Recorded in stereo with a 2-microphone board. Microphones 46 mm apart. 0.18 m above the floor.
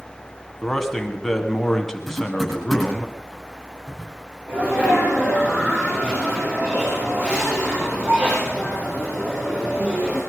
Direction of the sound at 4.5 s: 50° right (ahead or behind).